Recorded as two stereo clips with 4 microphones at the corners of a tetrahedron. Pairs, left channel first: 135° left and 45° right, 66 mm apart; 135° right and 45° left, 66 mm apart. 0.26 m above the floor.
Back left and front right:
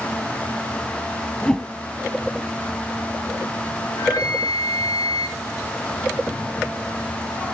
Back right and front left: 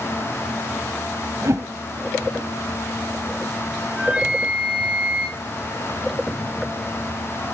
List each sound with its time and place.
1.4 s a whoosh: 55° left, 1.6 m
3.9 s a flute: 125° left, 1.9 m